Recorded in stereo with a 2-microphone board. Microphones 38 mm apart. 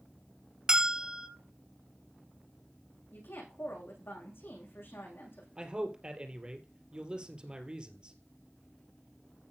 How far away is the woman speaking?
About 7 m.